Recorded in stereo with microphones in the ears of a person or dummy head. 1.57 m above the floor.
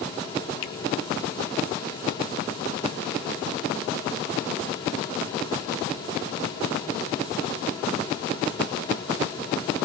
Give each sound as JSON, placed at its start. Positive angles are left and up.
{"t": 0.6, "sound": "a finger snap", "side_deg": 70, "distance_m": 2.5}